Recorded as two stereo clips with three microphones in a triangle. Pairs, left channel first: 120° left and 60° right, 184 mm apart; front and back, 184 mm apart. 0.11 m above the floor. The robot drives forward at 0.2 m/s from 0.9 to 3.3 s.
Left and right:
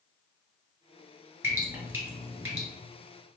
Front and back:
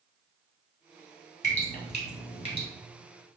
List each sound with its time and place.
1.4 s dripping: 10° left, 1.5 m; by 2.7 s 15° left, 1.3 m